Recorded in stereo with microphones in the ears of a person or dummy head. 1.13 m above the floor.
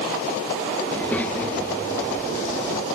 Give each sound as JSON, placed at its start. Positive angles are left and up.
{"t": 0.9, "sound": "a child speaking", "side_deg": 5, "distance_m": 1.4}